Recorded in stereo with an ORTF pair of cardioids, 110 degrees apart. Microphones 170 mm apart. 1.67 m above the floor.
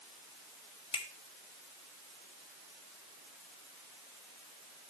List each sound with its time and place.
0.9 s a finger snap: 30° left, 2.5 m